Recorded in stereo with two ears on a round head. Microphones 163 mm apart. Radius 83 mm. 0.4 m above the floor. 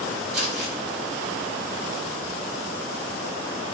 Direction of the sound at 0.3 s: 35° right (ahead or behind).